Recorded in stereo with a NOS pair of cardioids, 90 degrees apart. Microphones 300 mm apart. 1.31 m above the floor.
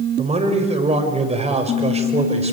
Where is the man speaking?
20° right, 6 m.